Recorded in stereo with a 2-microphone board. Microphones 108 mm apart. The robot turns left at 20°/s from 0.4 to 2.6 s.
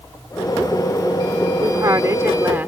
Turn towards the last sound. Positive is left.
turn(degrees=-20)  # may be behind; listen again after turning